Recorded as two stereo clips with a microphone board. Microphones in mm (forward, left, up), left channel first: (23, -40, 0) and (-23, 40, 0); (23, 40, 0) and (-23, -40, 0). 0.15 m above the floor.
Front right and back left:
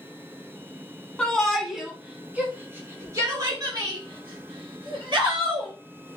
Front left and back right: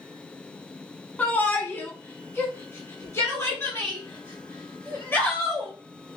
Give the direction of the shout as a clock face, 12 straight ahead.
12 o'clock.